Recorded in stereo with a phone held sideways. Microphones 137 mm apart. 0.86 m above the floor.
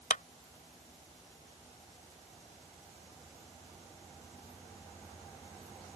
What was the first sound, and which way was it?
A clap, 75° left (ahead or behind).